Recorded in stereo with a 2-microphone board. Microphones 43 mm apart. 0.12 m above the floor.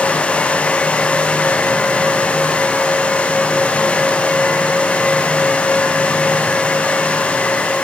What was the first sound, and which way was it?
Only background noise.